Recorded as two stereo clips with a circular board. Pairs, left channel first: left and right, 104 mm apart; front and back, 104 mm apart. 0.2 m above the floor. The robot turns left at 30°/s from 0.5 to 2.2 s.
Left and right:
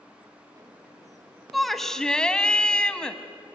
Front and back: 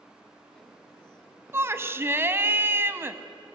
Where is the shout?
Straight behind, 1.1 m; by 3.2 s 160° left, 1.1 m.